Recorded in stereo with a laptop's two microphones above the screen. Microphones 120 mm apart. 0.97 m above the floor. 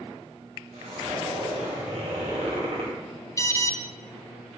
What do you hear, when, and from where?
0.7 s a zipper: 70° right (ahead or behind), 2 m
3.4 s an alarm: 25° left (ahead or behind), 0.6 m